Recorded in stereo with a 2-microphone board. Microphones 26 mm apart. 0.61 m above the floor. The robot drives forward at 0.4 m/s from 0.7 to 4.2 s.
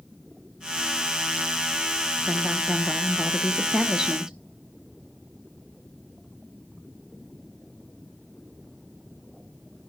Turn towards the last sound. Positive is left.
turn(degrees=-20)  # may be behind; listen again after turning